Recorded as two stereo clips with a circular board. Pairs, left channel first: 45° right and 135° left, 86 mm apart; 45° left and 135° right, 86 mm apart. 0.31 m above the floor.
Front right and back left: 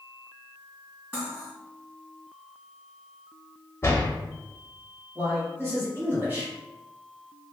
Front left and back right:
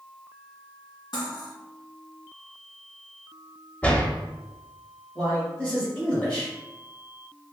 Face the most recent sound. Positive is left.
turn(degrees=105)